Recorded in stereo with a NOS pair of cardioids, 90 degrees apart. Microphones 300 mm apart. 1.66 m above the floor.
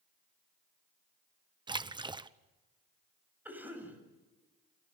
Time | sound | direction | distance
1.7 | a splash | 15° right | 0.9 m
3.5 | a cough | 5° right | 8 m